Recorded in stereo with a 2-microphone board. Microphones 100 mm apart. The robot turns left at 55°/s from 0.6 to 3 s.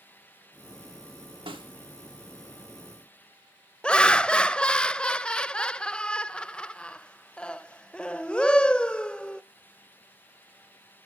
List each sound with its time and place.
1.5 s a snare drum: 65° right (ahead or behind), 1.8 m; by 1.7 s 55° right (ahead or behind), 1.8 m
3.8 s laughter: 10° left (ahead or behind), 0.5 m